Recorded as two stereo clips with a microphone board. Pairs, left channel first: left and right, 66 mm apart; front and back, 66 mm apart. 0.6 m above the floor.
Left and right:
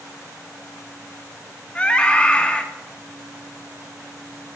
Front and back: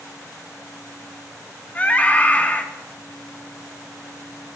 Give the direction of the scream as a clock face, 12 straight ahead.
11 o'clock.